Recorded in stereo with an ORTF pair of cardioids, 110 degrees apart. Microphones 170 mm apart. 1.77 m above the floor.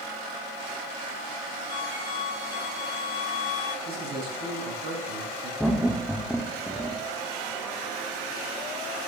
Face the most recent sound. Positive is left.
turn(degrees=0)